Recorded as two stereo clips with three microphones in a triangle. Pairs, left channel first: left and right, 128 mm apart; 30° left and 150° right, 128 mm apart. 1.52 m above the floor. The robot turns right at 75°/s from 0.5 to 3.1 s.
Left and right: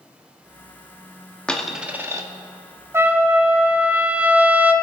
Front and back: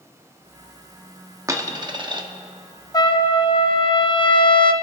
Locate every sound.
1.5 s a dropped coin: 165° left, 1.1 m; by 2.2 s 135° right, 1.1 m
2.9 s a trumpet: 25° right, 0.8 m; by 4.7 s 15° right, 0.8 m